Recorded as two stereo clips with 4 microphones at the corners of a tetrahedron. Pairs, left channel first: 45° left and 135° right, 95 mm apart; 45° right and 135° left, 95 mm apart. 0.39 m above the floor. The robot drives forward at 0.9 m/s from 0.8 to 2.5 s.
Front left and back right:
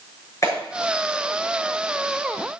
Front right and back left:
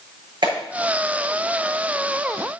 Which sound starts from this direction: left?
A clap, at 0.4 s.